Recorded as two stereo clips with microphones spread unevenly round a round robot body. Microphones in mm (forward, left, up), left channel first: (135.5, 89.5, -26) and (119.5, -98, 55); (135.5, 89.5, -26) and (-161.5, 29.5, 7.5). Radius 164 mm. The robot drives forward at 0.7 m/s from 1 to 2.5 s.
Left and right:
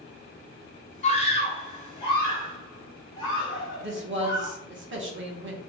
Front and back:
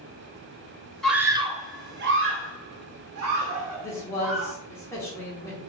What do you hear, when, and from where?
1.0 s a scream: 95° left, 0.9 m; by 4.5 s 145° left, 1.4 m
3.8 s a man speaking: 65° right, 1.2 m